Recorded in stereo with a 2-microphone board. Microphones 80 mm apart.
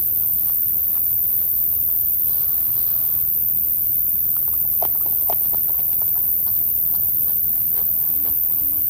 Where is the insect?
25° right (ahead or behind), 0.8 m.